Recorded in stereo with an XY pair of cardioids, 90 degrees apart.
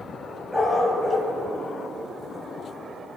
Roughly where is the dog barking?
Ahead.